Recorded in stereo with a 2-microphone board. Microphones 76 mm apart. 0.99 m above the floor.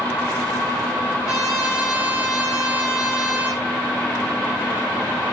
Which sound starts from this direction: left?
A trumpet, at 1.2 s.